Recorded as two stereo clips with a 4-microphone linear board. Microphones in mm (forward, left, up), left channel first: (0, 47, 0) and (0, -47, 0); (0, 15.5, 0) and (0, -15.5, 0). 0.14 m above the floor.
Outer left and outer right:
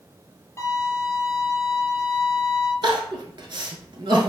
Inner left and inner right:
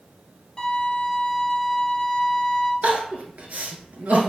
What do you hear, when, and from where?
0.6 s a violin: 30° left (ahead or behind), 0.7 m
2.8 s crying: 60° right (ahead or behind), 0.6 m